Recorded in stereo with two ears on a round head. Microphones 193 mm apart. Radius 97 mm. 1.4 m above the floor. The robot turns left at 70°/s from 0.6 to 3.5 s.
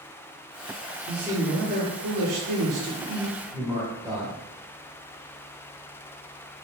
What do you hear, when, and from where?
1.1 s a man speaking: straight ahead, 0.8 m; by 4.3 s 170° right, 0.8 m